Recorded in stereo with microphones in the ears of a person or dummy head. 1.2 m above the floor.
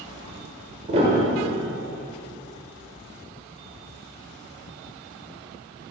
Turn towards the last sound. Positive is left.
turn(degrees=-30)  # may be behind; listen again after turning